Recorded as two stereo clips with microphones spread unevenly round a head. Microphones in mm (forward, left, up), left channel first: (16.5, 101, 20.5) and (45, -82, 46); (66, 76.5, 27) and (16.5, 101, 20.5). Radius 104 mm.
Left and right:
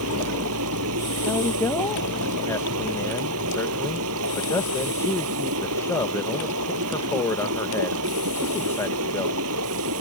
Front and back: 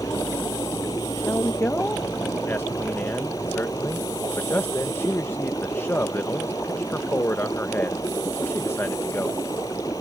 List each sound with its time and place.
0.0 s running water: 85° right
1.2 s a man speaking: 25° left